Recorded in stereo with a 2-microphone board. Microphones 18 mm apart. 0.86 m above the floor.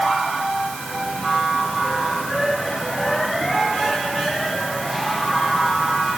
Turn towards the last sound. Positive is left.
No sound to turn to.